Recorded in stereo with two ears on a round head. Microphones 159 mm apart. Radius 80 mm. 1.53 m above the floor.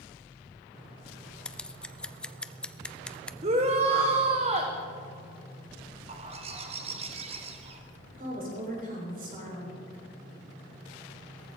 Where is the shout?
35° right (ahead or behind), 1.0 m.